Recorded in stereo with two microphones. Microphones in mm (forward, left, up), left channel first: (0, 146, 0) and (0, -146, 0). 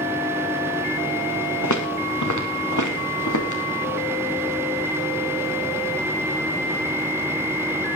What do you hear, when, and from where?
1.6 s footsteps: 75° left (ahead or behind), 2.5 m; by 3.6 s 85° left, 4 m